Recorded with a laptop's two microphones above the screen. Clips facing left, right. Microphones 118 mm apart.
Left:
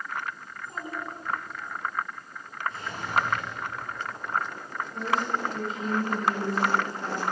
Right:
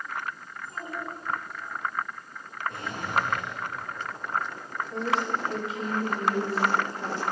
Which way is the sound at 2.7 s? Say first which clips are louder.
Even; 50° right (ahead or behind).